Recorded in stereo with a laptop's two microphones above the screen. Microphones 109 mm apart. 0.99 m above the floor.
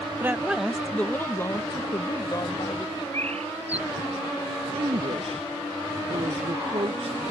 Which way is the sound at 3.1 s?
75° right (ahead or behind).